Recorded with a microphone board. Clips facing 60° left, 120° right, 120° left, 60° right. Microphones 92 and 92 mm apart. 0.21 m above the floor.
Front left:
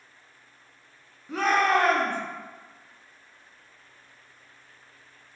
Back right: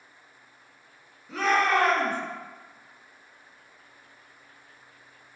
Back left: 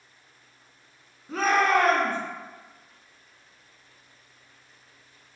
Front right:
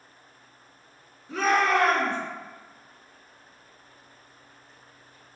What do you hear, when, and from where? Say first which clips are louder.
1.3 s a shout: front left 1 dB, back left 1 dB; 110° left, 1.6 m